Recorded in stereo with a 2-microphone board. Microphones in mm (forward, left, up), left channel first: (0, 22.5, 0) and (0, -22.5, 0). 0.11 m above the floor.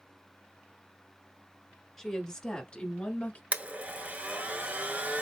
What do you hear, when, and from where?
2.0 s a woman speaking: 10° left (ahead or behind), 1.3 m; by 3.4 s 30° left (ahead or behind), 1.3 m
3.5 s a blender: 35° right (ahead or behind), 0.5 m